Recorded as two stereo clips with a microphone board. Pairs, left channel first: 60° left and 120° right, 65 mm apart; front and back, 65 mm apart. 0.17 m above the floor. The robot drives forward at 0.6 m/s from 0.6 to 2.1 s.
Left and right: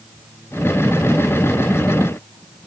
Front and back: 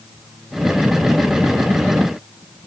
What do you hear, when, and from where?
Only background noise.